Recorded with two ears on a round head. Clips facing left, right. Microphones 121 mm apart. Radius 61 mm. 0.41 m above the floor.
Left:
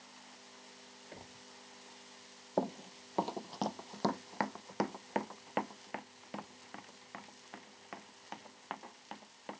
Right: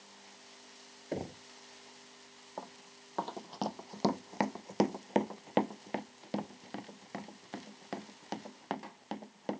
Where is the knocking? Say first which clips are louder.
Right 16 dB; 65° right (ahead or behind).